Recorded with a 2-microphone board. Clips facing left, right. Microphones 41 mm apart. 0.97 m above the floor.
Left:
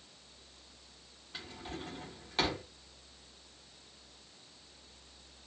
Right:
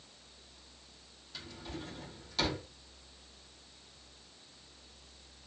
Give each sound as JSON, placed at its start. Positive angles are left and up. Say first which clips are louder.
{"t": 1.3, "sound": "a drawer", "louder": "left 1 dB", "side_deg": 35, "distance_m": 1.0}